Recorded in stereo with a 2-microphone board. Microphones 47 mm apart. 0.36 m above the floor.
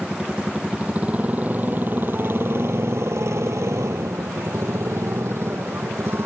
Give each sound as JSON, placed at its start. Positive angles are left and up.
{"t": 0.0, "sound": "a motorcycle", "side_deg": -20}